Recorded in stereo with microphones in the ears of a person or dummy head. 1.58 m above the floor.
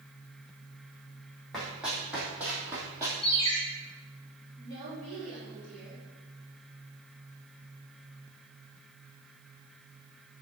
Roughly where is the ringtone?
Left.